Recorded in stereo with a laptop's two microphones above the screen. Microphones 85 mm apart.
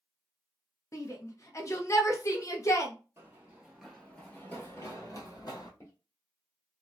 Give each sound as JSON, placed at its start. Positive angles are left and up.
{"t": 0.9, "sound": "a shout", "side_deg": 35, "distance_m": 0.8}
{"t": 3.2, "sound": "running footsteps", "side_deg": -30, "distance_m": 1.0}
{"t": 5.8, "sound": "footsteps", "side_deg": 35, "distance_m": 1.3}